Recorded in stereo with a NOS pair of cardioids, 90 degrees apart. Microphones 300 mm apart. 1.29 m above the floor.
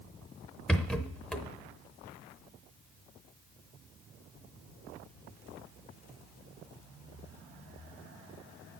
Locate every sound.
0.7 s a rattle: 5° left, 0.7 m